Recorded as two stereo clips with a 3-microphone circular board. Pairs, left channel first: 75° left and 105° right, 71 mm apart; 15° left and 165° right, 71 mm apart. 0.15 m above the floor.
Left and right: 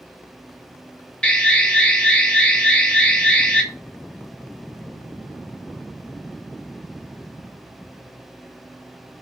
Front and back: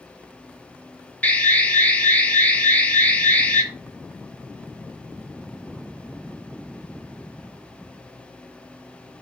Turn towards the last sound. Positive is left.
turn(degrees=25)